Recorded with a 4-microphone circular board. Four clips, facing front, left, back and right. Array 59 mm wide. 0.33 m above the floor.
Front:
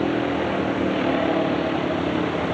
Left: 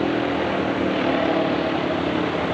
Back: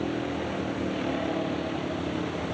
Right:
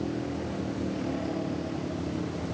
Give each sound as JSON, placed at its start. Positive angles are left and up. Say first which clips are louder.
{"t": 0.0, "sound": "a vehicle", "louder": "left 11 dB, front 8 dB", "azimuth_deg": 55}